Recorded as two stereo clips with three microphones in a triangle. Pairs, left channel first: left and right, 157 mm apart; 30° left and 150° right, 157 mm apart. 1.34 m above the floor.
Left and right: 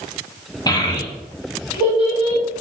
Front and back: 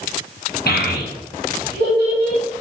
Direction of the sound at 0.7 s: 25° left.